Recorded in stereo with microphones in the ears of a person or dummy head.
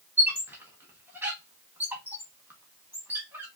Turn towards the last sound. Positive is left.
turn(degrees=-5)  # may be behind; listen again after turning